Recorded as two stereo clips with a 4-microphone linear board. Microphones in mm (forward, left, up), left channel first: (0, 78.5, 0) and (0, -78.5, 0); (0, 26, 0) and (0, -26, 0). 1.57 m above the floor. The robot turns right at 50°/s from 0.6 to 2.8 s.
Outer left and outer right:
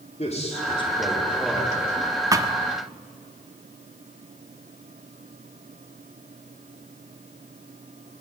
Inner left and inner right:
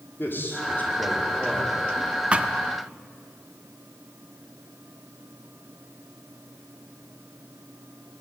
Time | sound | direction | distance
0.2 | a man speaking | 135° left | 5 m
2.3 | a thud | 20° right (ahead or behind) | 1.1 m